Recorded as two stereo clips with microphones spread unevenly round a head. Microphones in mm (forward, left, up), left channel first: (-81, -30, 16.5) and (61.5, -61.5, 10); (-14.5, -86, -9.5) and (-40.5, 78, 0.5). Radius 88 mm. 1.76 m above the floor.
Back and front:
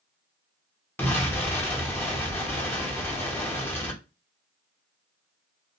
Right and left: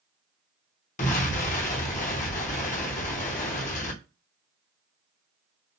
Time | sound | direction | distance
1.0 | an explosion | 120° right | 1.0 m